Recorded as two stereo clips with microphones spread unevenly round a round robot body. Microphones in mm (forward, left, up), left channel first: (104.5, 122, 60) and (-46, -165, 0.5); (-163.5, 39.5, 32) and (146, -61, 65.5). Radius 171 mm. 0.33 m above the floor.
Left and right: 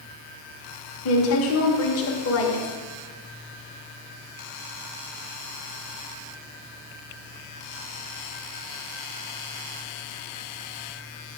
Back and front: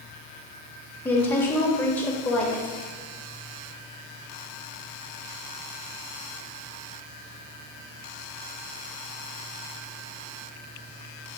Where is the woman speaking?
90° left, 1.1 m.